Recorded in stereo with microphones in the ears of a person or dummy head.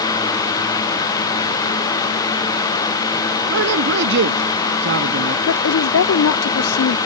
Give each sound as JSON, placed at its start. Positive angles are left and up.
{"t": 3.5, "sound": "a man speaking", "side_deg": -70}
{"t": 5.5, "sound": "a woman speaking", "side_deg": 80}